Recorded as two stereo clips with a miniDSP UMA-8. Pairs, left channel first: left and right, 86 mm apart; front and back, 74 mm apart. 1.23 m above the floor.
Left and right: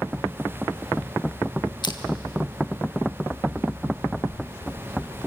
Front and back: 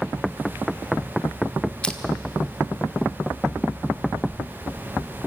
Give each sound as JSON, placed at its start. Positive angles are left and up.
{"t": 1.8, "sound": "crushing", "azimuth_deg": 75, "distance_m": 1.3}